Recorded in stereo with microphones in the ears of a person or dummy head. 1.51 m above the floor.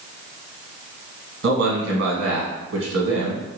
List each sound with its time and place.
1.4 s a man speaking: 65° right (ahead or behind), 1.4 m